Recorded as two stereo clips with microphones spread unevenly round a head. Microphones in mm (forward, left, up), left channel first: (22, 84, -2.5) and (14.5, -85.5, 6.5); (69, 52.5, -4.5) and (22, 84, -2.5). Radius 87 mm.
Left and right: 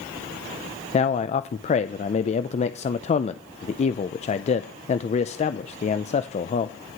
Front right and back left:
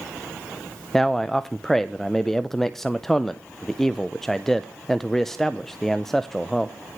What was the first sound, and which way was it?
A man speaking, 45° left.